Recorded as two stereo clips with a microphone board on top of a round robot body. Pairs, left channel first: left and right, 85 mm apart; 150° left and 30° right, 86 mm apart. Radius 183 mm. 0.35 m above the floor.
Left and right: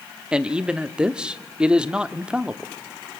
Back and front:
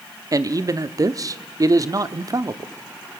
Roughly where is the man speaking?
Ahead.